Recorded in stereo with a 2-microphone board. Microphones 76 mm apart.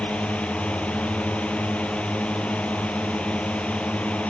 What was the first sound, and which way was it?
A drone, 15° left (ahead or behind).